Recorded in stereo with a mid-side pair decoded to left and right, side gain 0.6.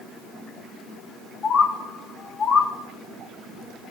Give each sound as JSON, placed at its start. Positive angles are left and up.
{"t": 1.4, "sound": "a bird", "azimuth_deg": 35, "distance_m": 0.8}